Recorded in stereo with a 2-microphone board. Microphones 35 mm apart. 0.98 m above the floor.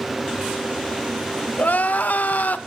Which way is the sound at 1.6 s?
60° left (ahead or behind).